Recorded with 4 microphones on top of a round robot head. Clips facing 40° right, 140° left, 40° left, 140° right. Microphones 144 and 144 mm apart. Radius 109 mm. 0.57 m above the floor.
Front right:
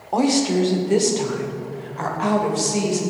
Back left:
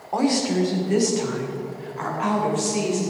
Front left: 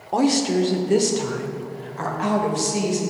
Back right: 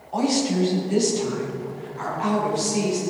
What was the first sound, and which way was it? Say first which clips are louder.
A woman speaking: front right 3 dB, front left 3 dB; 25° left.